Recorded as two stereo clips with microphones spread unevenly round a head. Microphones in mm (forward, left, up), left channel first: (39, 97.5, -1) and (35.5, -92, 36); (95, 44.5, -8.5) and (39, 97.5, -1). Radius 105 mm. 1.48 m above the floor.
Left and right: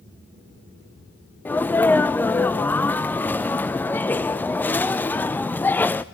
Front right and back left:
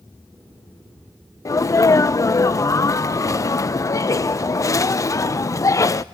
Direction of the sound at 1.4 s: 5° left.